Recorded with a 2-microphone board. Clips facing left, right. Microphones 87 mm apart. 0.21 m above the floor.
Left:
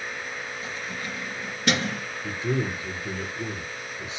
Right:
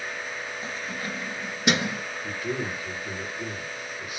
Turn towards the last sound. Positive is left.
turn(degrees=25)  # may be behind; listen again after turning